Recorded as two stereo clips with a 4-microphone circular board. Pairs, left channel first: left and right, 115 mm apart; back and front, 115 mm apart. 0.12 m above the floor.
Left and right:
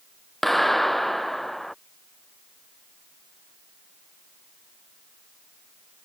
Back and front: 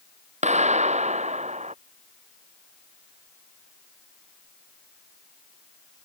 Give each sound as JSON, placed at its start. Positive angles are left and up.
{"t": 0.4, "sound": "a clap", "azimuth_deg": 0}